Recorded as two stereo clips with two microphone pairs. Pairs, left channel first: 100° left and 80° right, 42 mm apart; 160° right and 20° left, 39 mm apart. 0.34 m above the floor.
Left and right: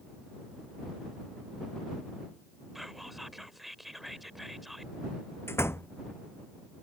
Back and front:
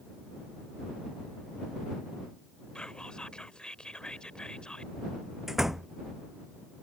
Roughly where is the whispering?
Behind.